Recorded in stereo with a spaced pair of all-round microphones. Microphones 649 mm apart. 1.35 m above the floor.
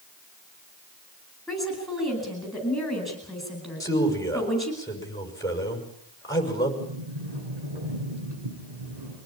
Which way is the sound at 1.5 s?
Centre (ahead or behind).